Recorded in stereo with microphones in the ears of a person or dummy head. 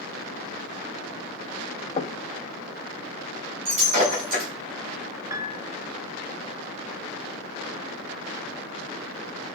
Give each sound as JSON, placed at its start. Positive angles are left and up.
{"t": 2.0, "sound": "knocking", "side_deg": 25, "distance_m": 1.1}
{"t": 3.6, "sound": "breaking glass", "side_deg": -40, "distance_m": 5.0}
{"t": 5.3, "sound": "a piano", "side_deg": -20, "distance_m": 0.5}